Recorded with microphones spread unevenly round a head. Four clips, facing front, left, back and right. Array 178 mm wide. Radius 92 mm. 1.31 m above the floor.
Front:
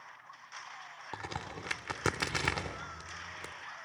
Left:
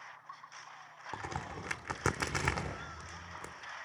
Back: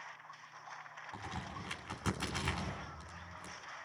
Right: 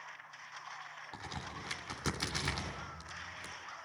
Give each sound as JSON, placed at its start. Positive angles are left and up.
{"t": 1.1, "sound": "a crack", "azimuth_deg": 30, "distance_m": 3.0}